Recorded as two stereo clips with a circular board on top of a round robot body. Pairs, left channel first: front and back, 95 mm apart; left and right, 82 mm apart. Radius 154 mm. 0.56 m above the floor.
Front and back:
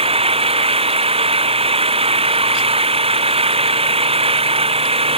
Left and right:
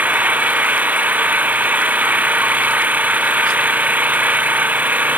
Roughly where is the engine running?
Behind.